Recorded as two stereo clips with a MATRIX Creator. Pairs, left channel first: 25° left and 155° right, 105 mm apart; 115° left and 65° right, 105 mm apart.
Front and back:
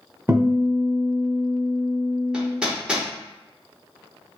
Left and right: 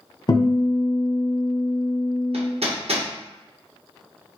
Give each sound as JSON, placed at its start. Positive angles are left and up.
{"t": 0.3, "sound": "a guitar", "azimuth_deg": 135, "distance_m": 0.9}
{"t": 2.3, "sound": "hammering", "azimuth_deg": -75, "distance_m": 0.9}